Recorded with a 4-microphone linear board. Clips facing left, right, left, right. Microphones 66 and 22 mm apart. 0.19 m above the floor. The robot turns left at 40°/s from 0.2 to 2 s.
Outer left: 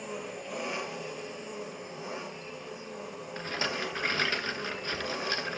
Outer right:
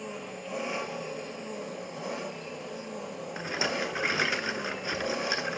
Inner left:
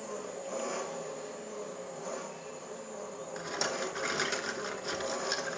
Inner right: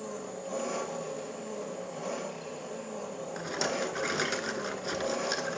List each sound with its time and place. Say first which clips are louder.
0.0 s an engine running: even, inner right 1 dB; 5° left, 3 m; by 5.6 s 65° right, 3 m
3.4 s a rattle: outer right 2 dB, inner right 2 dB; 10° right (ahead or behind), 1.0 m